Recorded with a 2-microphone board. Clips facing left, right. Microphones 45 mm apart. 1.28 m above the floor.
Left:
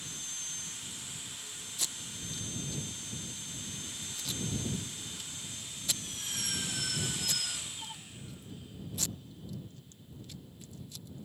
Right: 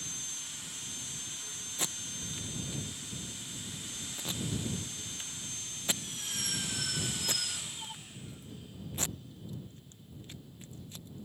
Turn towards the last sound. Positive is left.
turn(degrees=-35)  # may be behind; listen again after turning